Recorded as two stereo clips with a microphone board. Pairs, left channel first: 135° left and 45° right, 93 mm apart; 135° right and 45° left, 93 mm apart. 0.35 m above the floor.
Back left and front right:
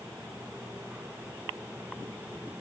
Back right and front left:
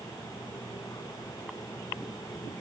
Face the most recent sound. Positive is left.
No sound to turn to.